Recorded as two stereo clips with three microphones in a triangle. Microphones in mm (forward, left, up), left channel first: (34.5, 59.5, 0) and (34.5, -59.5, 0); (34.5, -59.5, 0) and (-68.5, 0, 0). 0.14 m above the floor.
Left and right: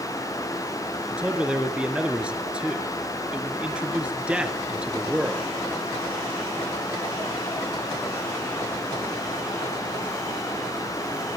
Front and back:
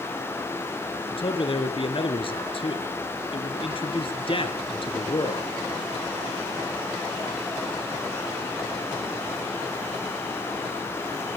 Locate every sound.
1.1 s a man speaking: 10° right, 2.5 m